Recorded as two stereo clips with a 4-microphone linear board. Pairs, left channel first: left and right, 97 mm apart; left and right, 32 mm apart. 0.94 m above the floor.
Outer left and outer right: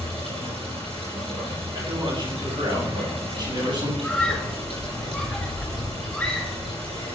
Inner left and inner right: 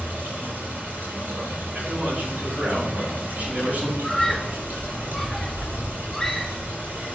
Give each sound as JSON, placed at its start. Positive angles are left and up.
{"t": 0.0, "sound": "running water", "side_deg": -80, "distance_m": 6.5}
{"t": 1.8, "sound": "a man speaking", "side_deg": -50, "distance_m": 7.5}
{"t": 4.0, "sound": "a scream", "side_deg": 5, "distance_m": 4.5}